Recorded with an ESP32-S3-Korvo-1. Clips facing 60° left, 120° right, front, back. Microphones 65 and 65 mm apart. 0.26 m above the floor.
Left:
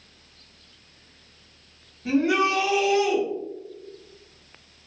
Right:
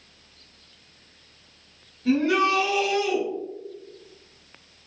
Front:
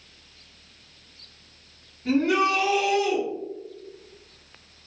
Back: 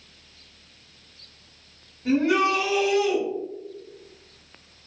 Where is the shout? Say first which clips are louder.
Right 1 dB, back 1 dB; 105° left, 1.4 m.